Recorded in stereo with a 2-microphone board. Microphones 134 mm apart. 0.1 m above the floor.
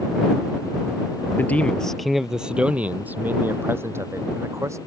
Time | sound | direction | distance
1.4 | a man speaking | 15° left (ahead or behind) | ?